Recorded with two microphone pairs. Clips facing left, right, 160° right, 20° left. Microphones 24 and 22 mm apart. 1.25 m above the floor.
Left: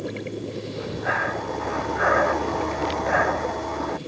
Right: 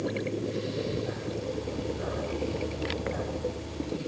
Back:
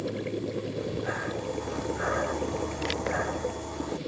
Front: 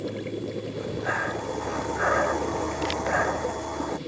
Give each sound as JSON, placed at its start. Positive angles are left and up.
{"t": 0.7, "sound": "breathing", "azimuth_deg": 85}